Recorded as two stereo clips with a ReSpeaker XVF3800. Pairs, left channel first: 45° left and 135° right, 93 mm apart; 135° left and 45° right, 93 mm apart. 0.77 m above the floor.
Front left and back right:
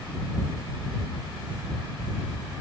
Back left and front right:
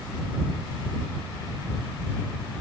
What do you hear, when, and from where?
Only background noise.